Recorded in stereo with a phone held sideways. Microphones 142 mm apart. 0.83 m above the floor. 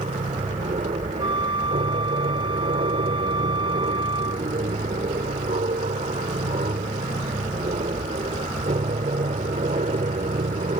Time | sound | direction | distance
0.0 | an aircraft | 60° right (ahead or behind) | ?
1.2 | a flute | 35° right (ahead or behind) | ?